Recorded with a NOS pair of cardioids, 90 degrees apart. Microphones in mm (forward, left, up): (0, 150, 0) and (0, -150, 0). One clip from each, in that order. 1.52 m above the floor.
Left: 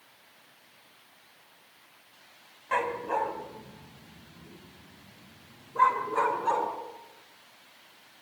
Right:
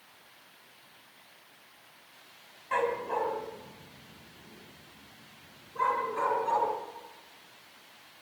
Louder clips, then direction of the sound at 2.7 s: Left 1 dB; 30° left.